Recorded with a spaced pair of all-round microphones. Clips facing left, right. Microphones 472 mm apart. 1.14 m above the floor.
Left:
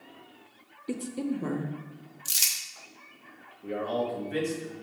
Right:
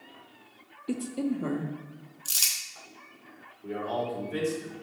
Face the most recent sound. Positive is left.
turn(degrees=80)